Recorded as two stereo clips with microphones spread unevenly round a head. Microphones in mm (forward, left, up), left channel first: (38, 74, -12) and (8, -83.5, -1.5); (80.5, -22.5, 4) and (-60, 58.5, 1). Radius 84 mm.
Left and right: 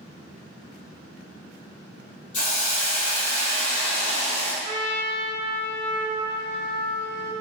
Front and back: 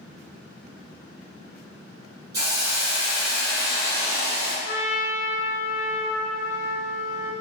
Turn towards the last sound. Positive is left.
turn(degrees=-55)